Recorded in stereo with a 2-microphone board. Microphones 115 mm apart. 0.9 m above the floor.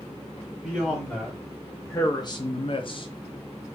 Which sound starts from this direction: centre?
A man speaking, at 0.6 s.